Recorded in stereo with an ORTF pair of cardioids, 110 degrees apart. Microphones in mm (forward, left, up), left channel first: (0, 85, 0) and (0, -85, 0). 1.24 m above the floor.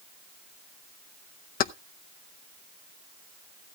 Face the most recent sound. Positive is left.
turn(degrees=55)